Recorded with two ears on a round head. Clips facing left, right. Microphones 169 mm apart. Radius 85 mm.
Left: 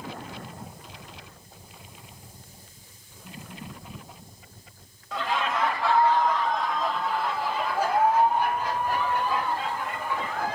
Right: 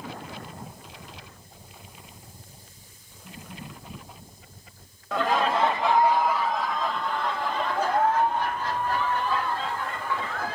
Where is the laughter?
45° right (ahead or behind), 0.6 m; by 10.5 s 15° left (ahead or behind), 3.5 m.